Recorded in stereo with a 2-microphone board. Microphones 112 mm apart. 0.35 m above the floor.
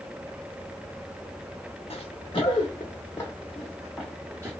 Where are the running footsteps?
60° left (ahead or behind), 1.2 m; by 4.5 s 20° right (ahead or behind), 1.2 m.